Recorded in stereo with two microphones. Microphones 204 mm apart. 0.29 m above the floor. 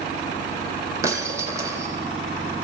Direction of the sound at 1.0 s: 15° right (ahead or behind).